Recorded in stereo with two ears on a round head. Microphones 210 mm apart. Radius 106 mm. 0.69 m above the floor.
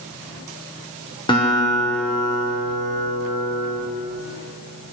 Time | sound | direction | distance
1.3 | a guitar | 20° left (ahead or behind) | 1.0 m